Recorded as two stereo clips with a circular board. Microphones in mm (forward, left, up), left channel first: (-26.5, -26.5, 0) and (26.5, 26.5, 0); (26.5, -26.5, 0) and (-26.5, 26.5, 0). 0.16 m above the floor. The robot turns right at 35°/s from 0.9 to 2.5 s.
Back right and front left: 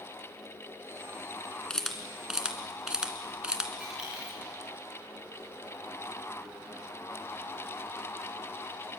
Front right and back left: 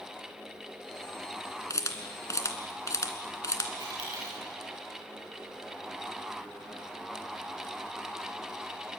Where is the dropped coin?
125° left, 7.5 m.